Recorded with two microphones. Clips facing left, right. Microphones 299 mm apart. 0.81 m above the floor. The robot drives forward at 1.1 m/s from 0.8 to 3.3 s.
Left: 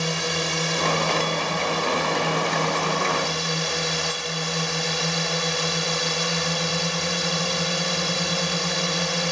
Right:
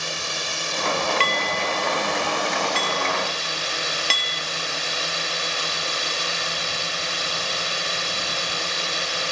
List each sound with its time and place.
0.0 s a drone: 75° left (ahead or behind); by 9.3 s 60° left (ahead or behind)
1.2 s dishes clattering: 80° right; by 4.4 s 85° right